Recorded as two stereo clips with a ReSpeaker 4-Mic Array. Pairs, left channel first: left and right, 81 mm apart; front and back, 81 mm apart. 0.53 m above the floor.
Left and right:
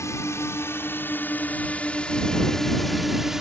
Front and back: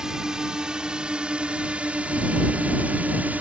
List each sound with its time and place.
0.0 s a drone: 105° left; by 3.4 s 165° right